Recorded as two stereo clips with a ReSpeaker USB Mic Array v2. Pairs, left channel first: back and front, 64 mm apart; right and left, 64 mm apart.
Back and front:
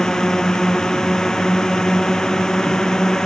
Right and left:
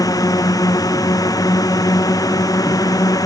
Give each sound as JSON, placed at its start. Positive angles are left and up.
{"t": 0.0, "sound": "a drone", "azimuth_deg": -100}